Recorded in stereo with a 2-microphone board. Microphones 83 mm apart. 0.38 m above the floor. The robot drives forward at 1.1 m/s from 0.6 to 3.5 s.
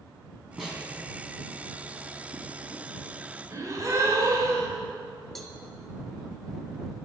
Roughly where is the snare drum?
Centre.